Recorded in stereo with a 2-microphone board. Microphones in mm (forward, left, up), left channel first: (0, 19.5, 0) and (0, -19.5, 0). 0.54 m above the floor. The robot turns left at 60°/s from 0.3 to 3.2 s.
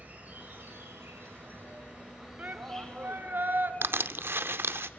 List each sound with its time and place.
0.0 s an insect: 45° right, 2 m; by 5.0 s 140° left, 2 m
2.4 s a shout: 50° right, 1.5 m; by 3.7 s 100° right, 1.5 m
3.8 s crushing: 70° right (ahead or behind), 0.5 m